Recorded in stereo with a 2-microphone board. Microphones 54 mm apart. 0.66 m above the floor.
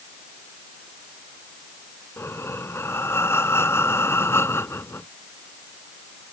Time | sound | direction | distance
2.2 | breathing | 55° left (ahead or behind) | ?